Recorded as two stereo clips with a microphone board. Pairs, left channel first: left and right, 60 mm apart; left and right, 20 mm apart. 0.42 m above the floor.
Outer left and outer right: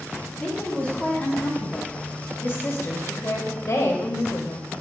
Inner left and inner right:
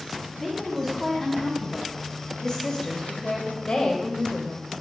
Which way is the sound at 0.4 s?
20° left (ahead or behind).